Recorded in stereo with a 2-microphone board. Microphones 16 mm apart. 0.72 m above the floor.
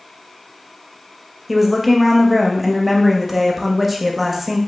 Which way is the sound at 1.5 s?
15° right (ahead or behind).